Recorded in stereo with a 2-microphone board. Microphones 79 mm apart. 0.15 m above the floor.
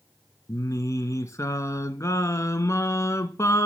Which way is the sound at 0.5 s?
40° left (ahead or behind).